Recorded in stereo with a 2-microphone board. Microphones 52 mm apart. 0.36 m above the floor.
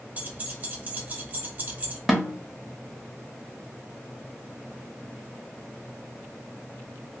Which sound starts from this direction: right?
Keys jangling, at 0.2 s.